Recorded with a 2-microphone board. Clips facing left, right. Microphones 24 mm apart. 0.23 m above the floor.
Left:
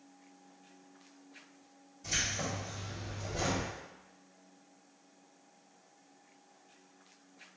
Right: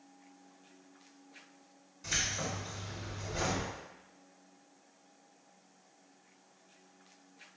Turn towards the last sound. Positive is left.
turn(degrees=-60)  # may be behind; listen again after turning